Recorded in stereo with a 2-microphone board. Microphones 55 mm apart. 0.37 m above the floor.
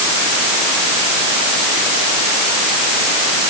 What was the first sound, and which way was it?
Only background noise.